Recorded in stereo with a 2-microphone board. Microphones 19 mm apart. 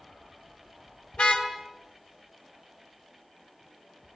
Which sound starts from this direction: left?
A car horn, at 1.1 s.